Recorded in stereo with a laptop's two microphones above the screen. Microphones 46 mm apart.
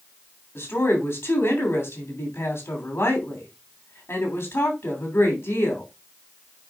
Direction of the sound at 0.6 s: 65° left (ahead or behind).